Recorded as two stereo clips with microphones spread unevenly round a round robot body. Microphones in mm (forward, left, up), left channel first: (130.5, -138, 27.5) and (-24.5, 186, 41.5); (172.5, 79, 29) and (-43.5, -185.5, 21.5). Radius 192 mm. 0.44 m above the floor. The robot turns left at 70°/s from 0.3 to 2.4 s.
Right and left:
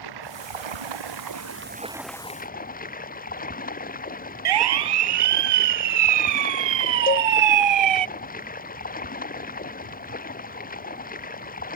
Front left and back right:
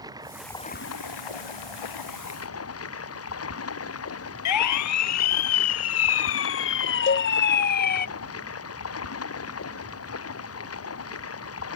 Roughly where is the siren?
Left.